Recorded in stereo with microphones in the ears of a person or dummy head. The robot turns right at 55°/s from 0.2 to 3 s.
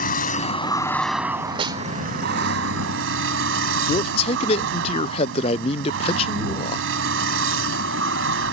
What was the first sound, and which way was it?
A vehicle, 135° left.